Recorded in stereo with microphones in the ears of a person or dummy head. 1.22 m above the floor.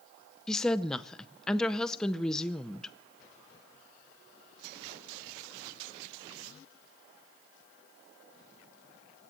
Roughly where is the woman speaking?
Centre.